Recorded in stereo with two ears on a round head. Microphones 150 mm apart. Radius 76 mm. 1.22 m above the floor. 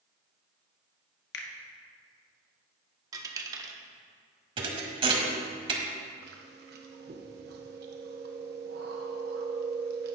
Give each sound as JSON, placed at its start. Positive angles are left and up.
{"t": 1.3, "sound": "a finger snap", "side_deg": 70, "distance_m": 1.0}
{"t": 3.1, "sound": "a dropped coin", "side_deg": -20, "distance_m": 0.8}
{"t": 4.6, "sound": "a thud", "side_deg": -30, "distance_m": 1.2}
{"t": 6.2, "sound": "chewing", "side_deg": -70, "distance_m": 0.9}